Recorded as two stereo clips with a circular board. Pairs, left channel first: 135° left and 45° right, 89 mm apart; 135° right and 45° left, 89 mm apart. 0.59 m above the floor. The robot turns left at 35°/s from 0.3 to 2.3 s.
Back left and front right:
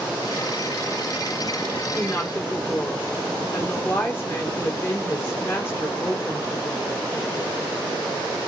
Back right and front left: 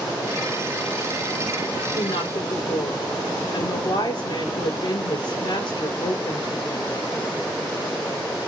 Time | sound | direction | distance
1.9 | a woman speaking | 150° right | 7.5 m